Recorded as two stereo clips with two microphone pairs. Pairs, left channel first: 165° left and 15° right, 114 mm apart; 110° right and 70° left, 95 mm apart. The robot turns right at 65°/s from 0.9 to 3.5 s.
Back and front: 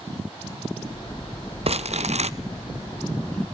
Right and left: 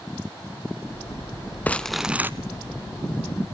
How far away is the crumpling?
About 0.7 m.